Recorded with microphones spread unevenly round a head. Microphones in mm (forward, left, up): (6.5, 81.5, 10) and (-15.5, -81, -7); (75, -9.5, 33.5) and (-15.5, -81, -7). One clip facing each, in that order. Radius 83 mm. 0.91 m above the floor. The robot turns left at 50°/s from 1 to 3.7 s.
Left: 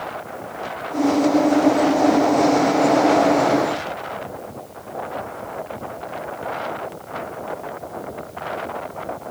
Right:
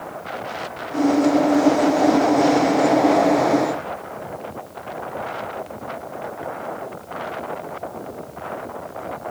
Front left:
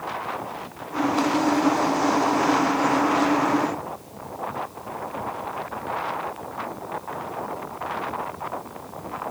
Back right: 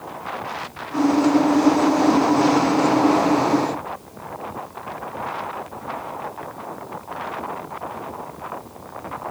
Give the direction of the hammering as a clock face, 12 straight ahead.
I don't hear hammering.